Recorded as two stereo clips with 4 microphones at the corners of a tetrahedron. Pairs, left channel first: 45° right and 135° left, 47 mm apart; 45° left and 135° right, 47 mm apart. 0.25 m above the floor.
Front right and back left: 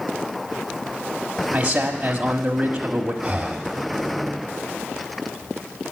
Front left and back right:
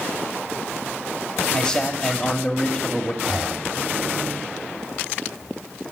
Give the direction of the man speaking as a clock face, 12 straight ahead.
9 o'clock.